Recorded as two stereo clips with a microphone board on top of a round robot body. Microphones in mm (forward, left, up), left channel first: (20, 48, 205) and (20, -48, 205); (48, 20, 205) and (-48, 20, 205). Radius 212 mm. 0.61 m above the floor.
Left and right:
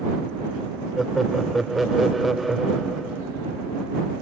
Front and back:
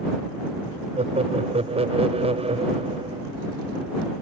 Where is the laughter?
Straight behind.